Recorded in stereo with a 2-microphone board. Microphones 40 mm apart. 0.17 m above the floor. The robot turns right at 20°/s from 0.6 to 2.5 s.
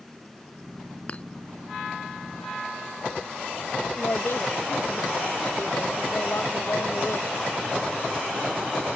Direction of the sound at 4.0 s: 65° left (ahead or behind).